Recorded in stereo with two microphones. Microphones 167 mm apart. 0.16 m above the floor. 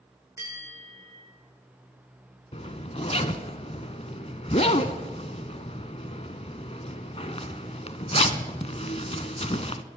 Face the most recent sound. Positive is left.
turn(degrees=45)  # may be behind; listen again after turning